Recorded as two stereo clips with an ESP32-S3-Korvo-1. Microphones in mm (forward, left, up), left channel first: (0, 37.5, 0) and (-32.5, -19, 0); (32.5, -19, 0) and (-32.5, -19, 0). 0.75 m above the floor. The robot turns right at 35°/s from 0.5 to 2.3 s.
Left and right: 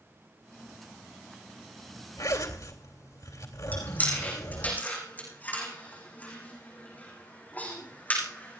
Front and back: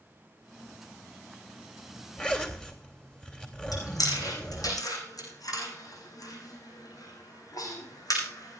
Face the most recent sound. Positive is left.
turn(degrees=0)